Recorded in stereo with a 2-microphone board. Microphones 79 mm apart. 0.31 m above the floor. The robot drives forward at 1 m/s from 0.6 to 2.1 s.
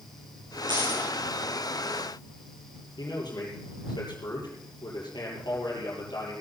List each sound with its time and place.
0.7 s a dropped coin: 85° right, 10 m; by 1.1 s 80° right, 10 m
3.0 s a man speaking: 65° left (ahead or behind), 8 m